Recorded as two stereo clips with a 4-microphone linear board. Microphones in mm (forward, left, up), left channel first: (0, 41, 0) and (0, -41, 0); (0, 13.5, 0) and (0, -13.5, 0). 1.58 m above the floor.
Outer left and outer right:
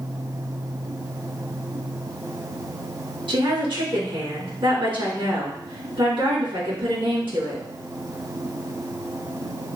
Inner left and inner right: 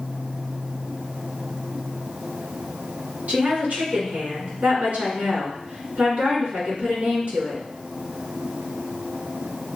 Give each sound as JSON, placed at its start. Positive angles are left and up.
{"t": 3.3, "sound": "a woman speaking", "side_deg": -75, "distance_m": 2.5}